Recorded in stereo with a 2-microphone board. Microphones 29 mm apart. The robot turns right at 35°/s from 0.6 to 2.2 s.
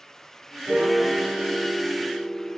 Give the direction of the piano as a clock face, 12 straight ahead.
2 o'clock.